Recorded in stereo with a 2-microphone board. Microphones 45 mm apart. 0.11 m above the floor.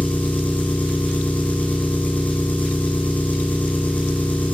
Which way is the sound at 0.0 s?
40° left (ahead or behind).